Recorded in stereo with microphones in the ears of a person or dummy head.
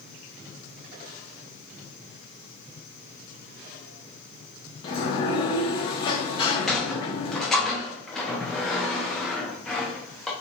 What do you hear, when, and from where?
4.8 s a sliding door: 30° left (ahead or behind), 0.6 m
6.4 s a sliding door: 5° left (ahead or behind), 0.5 m